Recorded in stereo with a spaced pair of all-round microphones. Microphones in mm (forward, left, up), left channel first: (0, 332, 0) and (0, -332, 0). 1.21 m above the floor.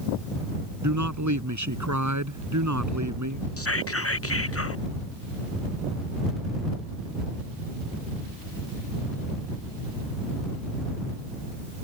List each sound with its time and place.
0.8 s a man speaking: 25° right (ahead or behind)
3.6 s whispering: 20° left (ahead or behind)